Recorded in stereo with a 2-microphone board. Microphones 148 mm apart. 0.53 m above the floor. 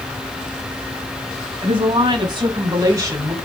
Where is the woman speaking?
35° right (ahead or behind), 5 m; by 3.4 s 15° right (ahead or behind), 3.5 m.